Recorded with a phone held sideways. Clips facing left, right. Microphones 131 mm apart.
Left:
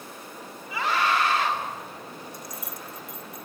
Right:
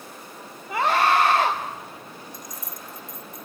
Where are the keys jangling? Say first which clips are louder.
Left 1 dB; 65° left (ahead or behind), 1.3 m.